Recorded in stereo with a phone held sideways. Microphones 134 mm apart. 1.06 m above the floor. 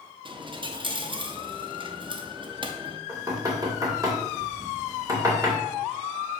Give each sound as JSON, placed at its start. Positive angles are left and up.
{"t": 0.2, "sound": "a dropped coin", "side_deg": -40, "distance_m": 0.7}
{"t": 3.1, "sound": "knocking", "side_deg": -25, "distance_m": 2.0}